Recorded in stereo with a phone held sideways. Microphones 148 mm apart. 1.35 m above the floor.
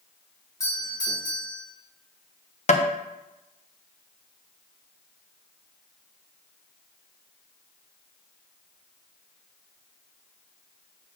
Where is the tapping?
45° left (ahead or behind), 0.7 m.